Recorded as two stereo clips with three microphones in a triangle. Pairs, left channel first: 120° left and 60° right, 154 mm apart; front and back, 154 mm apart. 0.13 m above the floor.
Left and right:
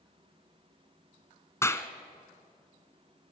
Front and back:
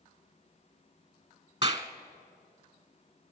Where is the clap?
175° left, 1.0 m.